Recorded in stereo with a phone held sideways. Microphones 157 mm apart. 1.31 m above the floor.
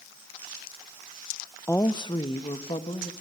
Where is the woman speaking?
15° left (ahead or behind), 0.6 m; by 3.1 s 40° left (ahead or behind), 2 m.